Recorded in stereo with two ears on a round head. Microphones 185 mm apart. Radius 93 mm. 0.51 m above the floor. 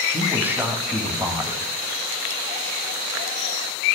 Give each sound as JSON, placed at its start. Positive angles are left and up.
{"t": 0.1, "sound": "a man speaking", "side_deg": -10, "distance_m": 2.0}